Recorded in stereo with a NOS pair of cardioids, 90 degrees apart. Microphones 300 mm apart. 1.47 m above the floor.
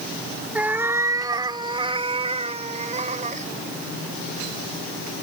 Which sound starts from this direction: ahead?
A cat meowing, at 0.6 s.